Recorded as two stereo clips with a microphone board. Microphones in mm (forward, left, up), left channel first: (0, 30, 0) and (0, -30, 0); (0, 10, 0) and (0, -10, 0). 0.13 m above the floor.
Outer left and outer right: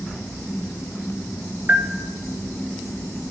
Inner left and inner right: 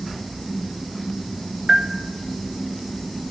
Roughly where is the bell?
Right.